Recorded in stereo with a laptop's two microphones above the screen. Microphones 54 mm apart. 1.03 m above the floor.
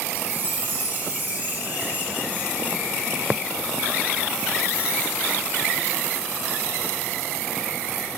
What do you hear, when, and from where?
0.1 s a chime: 35° right (ahead or behind), 8 m